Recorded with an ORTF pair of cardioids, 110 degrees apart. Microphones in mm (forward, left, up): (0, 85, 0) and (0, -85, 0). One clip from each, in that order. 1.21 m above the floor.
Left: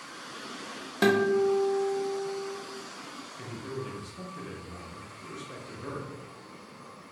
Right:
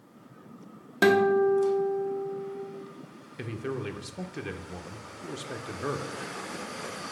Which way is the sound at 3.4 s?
40° right.